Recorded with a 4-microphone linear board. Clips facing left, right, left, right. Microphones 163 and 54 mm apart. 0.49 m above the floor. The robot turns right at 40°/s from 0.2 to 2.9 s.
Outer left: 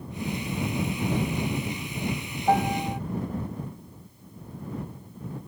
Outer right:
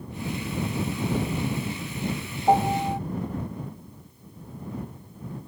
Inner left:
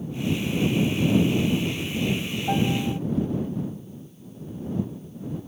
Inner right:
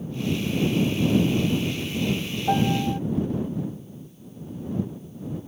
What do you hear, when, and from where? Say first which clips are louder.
2.5 s a piano: outer right 3 dB, inner right 2 dB; 15° right (ahead or behind); by 3.0 s 35° right (ahead or behind)